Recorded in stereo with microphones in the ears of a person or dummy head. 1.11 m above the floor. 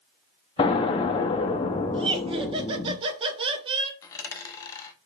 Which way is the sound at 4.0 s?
15° left (ahead or behind).